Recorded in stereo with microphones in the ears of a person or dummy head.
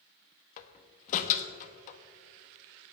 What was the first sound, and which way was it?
A door slam, 40° left (ahead or behind).